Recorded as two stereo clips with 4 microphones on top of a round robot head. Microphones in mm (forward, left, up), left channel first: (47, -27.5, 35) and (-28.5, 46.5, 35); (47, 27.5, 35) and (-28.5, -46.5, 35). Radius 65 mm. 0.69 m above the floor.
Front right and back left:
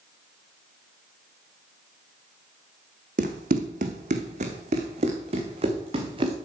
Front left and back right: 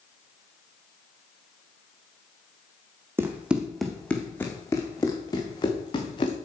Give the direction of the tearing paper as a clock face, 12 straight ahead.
I don't hear tearing paper.